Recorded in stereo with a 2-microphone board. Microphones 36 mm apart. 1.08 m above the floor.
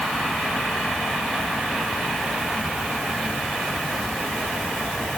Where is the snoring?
I don't hear snoring.